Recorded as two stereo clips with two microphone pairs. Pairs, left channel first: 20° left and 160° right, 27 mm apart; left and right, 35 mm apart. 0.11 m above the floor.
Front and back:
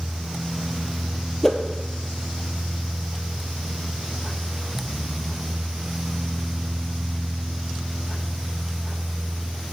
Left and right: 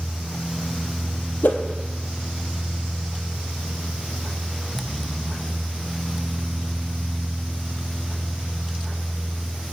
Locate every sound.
1.4 s a whoosh: 95° left, 0.9 m